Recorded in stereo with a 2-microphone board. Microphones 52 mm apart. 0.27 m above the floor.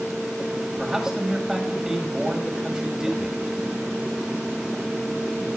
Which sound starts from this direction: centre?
A man speaking, at 0.8 s.